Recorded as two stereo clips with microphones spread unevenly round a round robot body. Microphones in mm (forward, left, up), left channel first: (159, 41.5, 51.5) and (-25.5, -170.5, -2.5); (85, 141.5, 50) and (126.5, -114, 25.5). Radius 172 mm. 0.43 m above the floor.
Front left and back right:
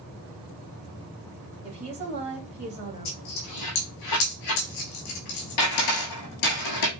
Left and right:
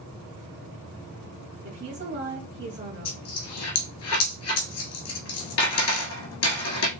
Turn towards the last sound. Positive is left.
turn(degrees=80)